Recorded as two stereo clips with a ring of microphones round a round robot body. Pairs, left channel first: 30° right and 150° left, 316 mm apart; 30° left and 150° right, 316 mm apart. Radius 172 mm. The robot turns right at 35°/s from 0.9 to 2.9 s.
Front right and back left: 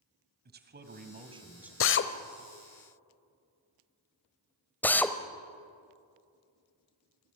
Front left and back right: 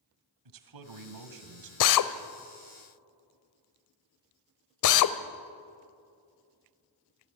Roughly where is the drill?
Ahead.